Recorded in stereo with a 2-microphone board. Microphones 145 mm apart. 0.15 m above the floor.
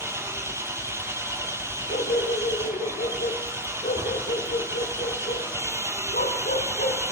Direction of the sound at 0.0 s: 20° right (ahead or behind).